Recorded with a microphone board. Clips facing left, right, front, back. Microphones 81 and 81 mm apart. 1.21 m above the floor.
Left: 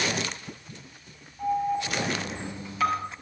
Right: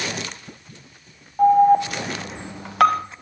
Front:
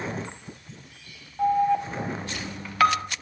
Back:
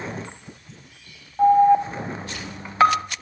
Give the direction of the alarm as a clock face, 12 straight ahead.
4 o'clock.